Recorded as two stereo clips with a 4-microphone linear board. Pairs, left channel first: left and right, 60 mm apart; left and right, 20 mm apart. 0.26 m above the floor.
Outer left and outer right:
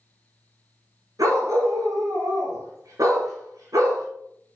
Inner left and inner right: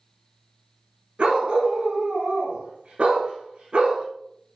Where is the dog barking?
75° right (ahead or behind), 2.0 m.